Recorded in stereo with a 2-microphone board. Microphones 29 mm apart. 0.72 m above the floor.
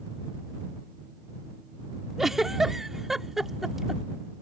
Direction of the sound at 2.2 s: 10° right (ahead or behind).